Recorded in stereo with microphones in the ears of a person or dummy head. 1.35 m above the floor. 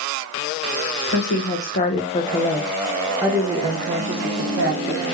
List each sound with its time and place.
1.1 s a woman speaking: 60° left (ahead or behind), 1.1 m; by 5.0 s 55° right (ahead or behind), 1.3 m